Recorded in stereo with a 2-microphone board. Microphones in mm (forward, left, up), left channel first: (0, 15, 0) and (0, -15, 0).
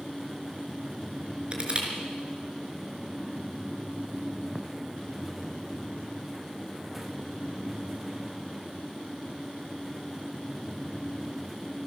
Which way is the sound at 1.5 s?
35° right (ahead or behind).